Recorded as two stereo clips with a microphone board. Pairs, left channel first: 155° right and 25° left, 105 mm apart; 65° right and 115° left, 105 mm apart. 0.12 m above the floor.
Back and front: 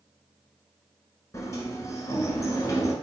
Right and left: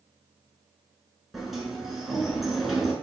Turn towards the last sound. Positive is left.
turn(degrees=-160)